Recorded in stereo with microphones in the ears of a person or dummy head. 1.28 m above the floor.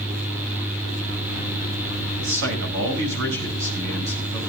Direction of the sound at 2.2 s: 65° right (ahead or behind).